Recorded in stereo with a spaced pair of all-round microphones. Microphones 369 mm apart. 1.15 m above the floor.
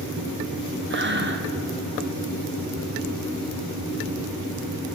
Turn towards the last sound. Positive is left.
turn(degrees=-30)  # may be behind; listen again after turning